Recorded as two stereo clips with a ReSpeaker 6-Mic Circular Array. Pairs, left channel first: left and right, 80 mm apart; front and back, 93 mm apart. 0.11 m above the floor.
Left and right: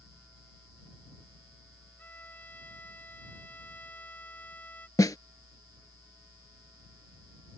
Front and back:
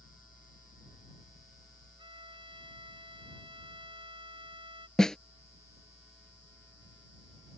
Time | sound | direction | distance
2.0 | a violin | 160° left | ?
5.0 | a snare drum | 80° left | ?